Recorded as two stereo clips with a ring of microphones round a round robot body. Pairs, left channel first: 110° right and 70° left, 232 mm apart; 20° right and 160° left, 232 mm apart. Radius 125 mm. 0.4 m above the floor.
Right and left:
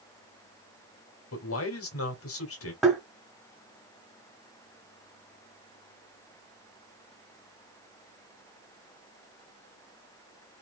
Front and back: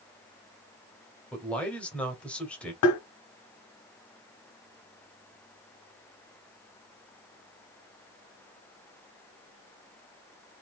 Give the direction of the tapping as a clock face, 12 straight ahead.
1 o'clock.